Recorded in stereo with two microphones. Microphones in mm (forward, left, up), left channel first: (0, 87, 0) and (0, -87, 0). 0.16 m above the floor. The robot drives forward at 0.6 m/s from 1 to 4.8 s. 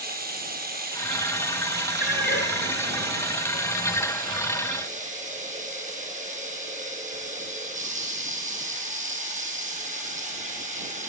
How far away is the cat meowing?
About 1.3 m.